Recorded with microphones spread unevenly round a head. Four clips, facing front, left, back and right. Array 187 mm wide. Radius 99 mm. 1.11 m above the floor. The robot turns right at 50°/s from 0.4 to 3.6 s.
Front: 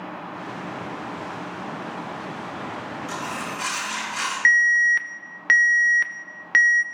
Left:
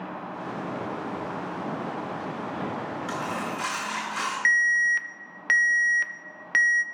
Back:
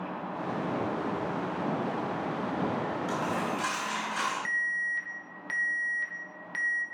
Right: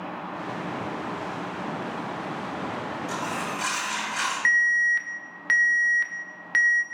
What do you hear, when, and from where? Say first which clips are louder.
3.1 s a dropped coin: even, front 1 dB; 95° left, 3.5 m; by 4.3 s 125° left, 3.5 m
4.5 s an alarm: even, front 13 dB; 10° left, 0.5 m